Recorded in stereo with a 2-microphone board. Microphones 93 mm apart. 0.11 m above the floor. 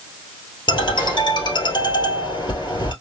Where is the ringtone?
60° left (ahead or behind), 2 m.